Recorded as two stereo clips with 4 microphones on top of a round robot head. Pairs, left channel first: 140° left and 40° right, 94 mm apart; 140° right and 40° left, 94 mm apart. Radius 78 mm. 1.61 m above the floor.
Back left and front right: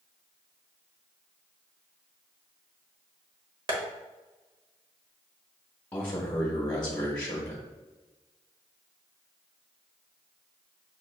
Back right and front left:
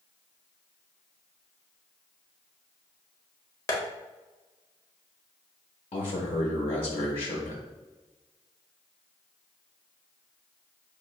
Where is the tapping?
80° right, 1.0 m.